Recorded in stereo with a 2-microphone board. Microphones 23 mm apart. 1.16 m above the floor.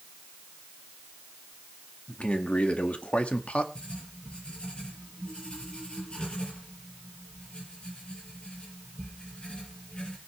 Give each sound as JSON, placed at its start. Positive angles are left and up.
{"t": 2.1, "sound": "a man speaking", "side_deg": 65, "distance_m": 1.7}
{"t": 3.8, "sound": "writing", "side_deg": 45, "distance_m": 6.0}